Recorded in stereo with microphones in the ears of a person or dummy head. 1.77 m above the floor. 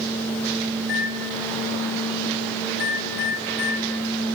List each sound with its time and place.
0.8 s a microwave: 65° left (ahead or behind), 1.7 m